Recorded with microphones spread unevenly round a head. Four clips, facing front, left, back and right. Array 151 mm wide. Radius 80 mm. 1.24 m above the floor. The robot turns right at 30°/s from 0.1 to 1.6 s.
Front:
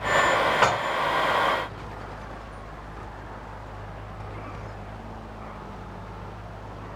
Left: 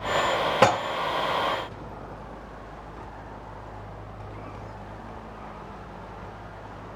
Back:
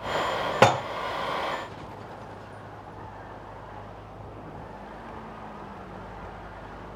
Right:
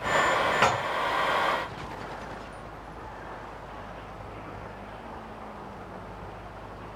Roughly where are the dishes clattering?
Behind left.